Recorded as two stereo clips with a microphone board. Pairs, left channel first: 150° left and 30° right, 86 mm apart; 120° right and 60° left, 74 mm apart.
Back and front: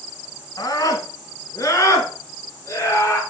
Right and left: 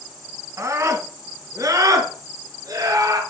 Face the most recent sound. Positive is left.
turn(degrees=95)